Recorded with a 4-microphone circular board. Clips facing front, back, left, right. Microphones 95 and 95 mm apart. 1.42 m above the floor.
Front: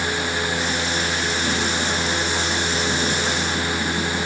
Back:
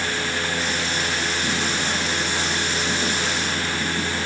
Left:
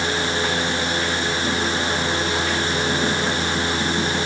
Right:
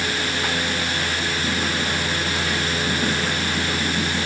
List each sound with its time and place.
Only background noise.